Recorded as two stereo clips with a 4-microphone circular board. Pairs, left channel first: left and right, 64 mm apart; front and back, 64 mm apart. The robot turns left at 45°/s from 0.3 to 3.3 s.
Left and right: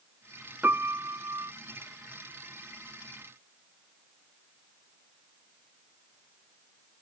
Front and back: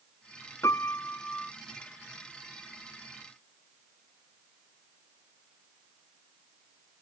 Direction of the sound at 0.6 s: 35° right.